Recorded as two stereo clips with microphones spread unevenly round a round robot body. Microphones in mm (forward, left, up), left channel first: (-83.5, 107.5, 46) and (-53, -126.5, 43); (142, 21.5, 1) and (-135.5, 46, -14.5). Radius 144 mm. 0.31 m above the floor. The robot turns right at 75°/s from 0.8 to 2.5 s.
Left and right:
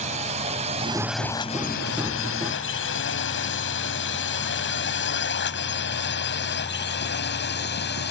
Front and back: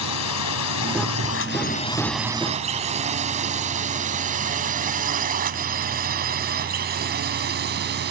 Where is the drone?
25° right; by 8.1 s 130° left.